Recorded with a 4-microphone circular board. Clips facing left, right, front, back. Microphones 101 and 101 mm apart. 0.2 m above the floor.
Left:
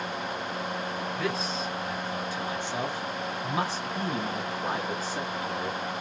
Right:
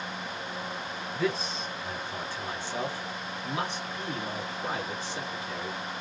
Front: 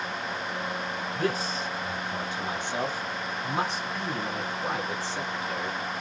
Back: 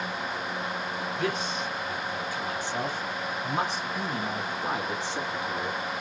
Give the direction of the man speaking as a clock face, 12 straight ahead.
12 o'clock.